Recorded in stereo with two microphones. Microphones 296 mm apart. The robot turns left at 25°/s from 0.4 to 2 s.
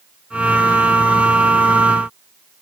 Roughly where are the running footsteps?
No running footsteps in this recording.